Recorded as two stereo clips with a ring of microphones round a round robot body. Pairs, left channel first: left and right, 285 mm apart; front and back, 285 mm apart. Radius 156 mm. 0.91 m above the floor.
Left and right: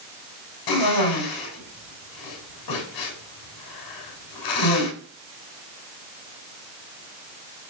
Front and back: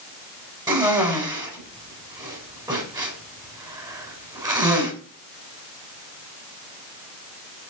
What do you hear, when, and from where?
0.7 s a cough: 105° left, 7.5 m